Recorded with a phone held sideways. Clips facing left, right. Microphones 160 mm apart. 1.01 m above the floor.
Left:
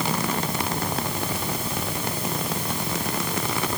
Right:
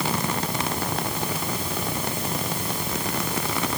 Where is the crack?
No crack in this recording.